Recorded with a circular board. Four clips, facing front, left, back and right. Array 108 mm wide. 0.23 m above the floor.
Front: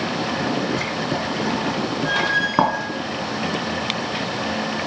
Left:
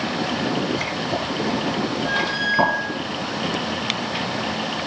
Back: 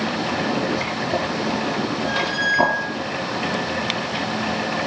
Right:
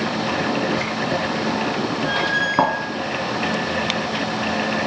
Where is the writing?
35° right, 2.5 m.